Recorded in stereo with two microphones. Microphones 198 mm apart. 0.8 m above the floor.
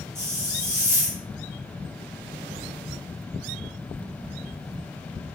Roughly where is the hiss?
Centre.